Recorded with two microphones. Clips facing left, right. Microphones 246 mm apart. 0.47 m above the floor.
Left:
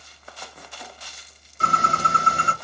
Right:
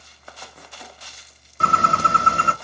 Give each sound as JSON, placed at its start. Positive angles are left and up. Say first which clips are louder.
{"t": 1.6, "sound": "a bird", "louder": "right 3 dB", "side_deg": -65, "distance_m": 0.6}